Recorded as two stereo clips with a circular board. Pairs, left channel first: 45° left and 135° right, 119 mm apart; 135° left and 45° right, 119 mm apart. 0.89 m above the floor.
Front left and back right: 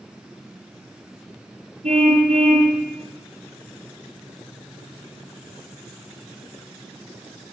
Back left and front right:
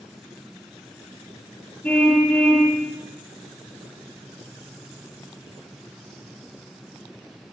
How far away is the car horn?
About 7 m.